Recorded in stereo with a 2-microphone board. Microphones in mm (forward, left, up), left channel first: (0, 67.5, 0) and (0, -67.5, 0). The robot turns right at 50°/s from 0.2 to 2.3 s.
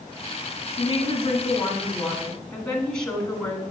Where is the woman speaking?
95° left, 1.5 m; by 3.7 s 170° left, 1.5 m.